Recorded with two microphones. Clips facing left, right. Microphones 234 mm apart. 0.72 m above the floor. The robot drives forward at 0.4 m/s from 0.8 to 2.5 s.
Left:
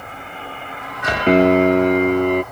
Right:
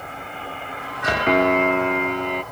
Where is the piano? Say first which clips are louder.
Left 7 dB; 35° left (ahead or behind); by 2.4 s 55° left (ahead or behind).